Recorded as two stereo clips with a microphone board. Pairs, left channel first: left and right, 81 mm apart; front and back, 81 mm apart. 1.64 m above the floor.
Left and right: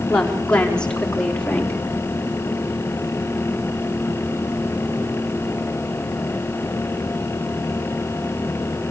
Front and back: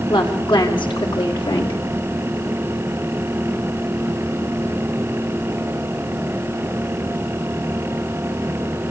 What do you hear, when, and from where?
0.1 s a woman speaking: 10° left, 5.5 m; by 1.8 s 15° left, 4 m